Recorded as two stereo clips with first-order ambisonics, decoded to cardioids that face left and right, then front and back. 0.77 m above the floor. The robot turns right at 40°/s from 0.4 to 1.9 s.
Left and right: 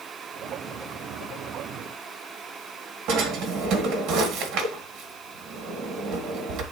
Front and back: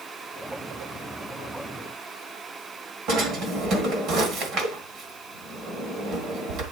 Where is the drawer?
130° right, 1.8 m.